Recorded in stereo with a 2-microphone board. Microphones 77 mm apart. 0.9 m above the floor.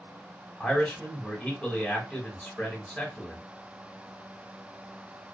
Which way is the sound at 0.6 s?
15° left (ahead or behind).